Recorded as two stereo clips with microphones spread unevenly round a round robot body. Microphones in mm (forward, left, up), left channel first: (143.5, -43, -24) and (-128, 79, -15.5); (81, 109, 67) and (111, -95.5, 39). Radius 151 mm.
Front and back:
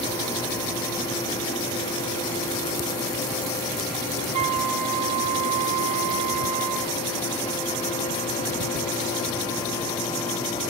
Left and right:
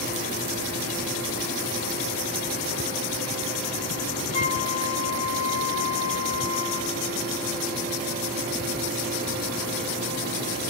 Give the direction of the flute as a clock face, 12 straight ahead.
8 o'clock.